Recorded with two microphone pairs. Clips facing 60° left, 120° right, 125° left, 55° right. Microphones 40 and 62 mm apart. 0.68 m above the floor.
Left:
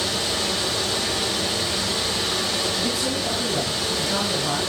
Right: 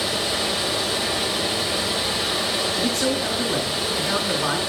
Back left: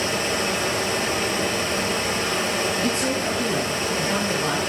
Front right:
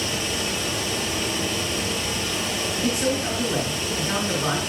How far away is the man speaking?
About 9.5 m.